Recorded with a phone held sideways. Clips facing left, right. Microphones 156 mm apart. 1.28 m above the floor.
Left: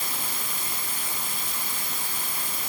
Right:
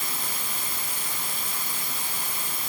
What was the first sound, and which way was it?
Only background noise.